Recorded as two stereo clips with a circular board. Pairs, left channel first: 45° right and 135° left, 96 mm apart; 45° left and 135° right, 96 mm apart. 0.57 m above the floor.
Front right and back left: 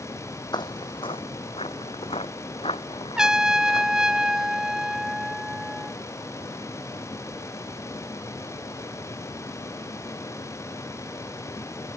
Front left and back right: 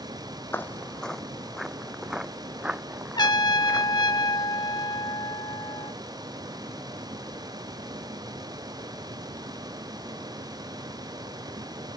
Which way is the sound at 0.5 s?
20° right.